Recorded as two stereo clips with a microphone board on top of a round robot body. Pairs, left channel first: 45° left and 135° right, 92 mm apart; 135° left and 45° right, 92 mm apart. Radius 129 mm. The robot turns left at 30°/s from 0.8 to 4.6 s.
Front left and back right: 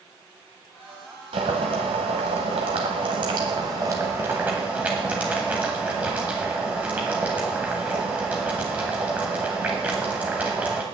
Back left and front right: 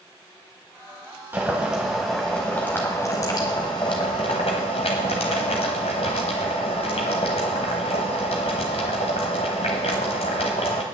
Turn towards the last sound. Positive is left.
turn(degrees=150)